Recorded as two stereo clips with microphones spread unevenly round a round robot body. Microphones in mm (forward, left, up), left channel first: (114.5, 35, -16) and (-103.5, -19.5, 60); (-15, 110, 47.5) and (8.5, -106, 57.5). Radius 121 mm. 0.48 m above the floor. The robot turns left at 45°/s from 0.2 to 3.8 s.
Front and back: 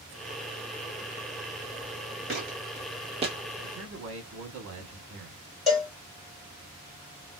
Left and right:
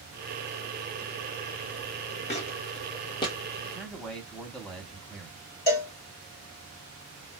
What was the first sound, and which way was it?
Footsteps, 160° left.